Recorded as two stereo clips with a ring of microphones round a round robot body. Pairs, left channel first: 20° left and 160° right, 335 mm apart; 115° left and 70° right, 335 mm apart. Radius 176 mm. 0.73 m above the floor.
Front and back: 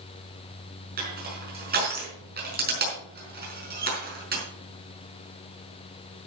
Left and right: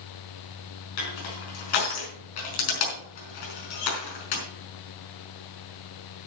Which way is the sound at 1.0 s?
135° left.